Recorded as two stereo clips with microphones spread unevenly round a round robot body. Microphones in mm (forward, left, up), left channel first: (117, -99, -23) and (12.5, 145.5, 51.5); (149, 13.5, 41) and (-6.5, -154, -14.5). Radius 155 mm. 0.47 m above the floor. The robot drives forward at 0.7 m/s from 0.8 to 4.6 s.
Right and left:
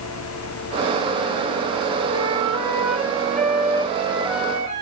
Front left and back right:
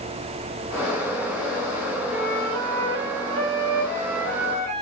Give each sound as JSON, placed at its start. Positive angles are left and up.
{"t": 2.1, "sound": "a flute", "azimuth_deg": -170, "distance_m": 2.5}